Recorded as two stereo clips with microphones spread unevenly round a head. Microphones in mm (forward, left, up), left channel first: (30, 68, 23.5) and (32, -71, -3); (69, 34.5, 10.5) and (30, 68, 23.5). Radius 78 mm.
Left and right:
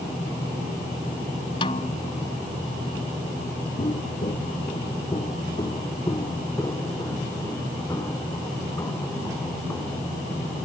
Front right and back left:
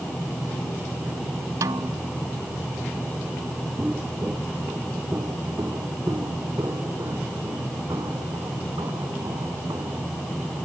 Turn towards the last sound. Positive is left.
turn(degrees=170)